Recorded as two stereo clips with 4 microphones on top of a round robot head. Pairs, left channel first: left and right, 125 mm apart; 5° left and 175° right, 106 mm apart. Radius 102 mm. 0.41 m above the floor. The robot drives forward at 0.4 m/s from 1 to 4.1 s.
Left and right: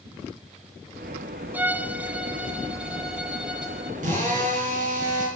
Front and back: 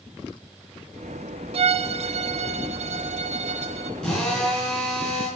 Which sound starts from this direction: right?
A drill, at 4.0 s.